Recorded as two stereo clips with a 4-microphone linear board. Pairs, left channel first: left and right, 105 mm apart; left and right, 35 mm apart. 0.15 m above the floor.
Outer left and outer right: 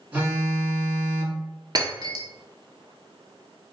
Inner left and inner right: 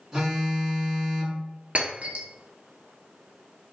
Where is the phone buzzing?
15° right (ahead or behind), 1.5 m.